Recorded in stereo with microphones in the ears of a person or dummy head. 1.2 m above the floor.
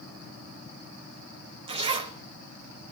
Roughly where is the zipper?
Right.